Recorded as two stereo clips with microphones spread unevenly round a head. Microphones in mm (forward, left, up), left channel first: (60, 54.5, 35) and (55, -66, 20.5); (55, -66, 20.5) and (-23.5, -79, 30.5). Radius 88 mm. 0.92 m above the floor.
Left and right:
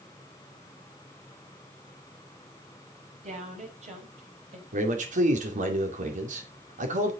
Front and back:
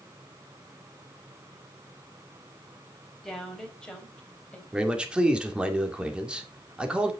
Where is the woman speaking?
75° right, 4.5 m; by 4.6 s 65° right, 3.5 m.